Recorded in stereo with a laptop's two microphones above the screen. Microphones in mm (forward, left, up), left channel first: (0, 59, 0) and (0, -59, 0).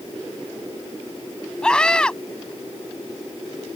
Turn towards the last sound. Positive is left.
turn(degrees=5)  # may be behind; listen again after turning